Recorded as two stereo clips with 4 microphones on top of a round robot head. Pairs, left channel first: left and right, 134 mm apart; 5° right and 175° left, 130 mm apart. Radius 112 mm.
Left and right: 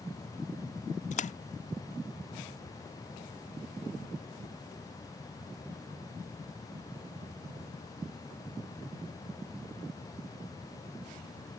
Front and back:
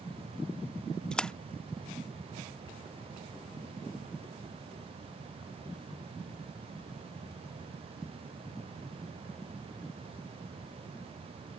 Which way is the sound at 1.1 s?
80° left.